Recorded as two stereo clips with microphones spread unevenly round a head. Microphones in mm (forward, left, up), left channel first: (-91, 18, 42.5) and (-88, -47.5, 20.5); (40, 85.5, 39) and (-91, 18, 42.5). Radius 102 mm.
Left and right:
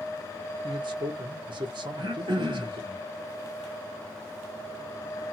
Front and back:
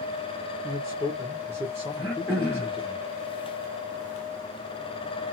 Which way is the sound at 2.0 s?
70° right.